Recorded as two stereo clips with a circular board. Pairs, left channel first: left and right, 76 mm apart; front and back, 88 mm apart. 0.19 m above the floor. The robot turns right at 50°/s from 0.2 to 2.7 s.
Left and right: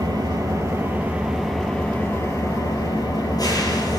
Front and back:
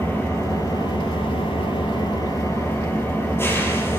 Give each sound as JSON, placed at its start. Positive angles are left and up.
{"t": 0.0, "sound": "an engine running", "azimuth_deg": -65, "distance_m": 4.0}